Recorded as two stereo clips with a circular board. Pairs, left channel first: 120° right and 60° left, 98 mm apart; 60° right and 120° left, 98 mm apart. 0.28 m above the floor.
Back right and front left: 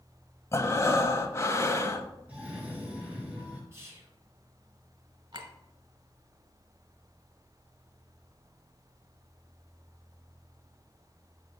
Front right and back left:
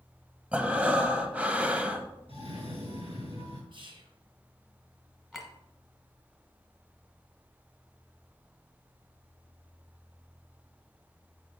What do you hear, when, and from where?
0.5 s breathing: 170° right, 0.7 m
2.3 s a cough: 135° left, 3.5 m
3.7 s whispering: 115° left, 2.5 m
5.3 s a clink: 30° left, 1.4 m